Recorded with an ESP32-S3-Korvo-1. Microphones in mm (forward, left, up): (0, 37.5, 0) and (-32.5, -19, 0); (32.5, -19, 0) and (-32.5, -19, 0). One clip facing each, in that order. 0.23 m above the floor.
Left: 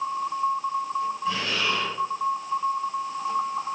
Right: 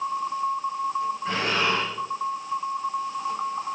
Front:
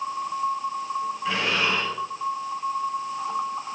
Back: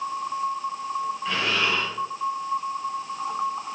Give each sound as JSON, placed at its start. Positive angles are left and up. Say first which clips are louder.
{"t": 1.2, "sound": "breathing", "louder": "right 2 dB, front 1 dB", "azimuth_deg": -85, "distance_m": 6.0}